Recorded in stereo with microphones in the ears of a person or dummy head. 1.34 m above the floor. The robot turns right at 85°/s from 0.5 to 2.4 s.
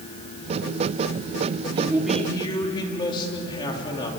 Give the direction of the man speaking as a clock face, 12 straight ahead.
1 o'clock.